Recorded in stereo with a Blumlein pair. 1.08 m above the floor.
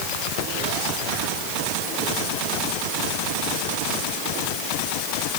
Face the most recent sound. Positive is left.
No sound to turn to.